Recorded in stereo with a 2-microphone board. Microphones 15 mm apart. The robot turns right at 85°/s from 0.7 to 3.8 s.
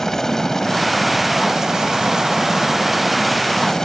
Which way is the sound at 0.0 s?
145° left.